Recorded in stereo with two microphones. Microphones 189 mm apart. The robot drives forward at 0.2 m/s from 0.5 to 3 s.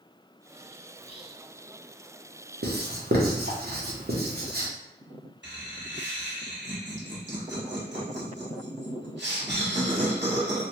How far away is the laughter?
About 1.4 m.